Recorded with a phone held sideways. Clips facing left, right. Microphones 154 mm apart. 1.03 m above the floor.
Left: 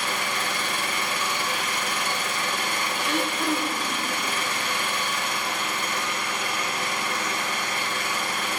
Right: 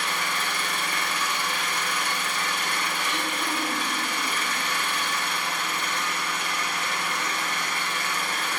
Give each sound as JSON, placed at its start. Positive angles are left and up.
{"t": 0.0, "sound": "an engine running", "side_deg": 75, "distance_m": 3.0}
{"t": 3.0, "sound": "throat clearing", "side_deg": 75, "distance_m": 1.6}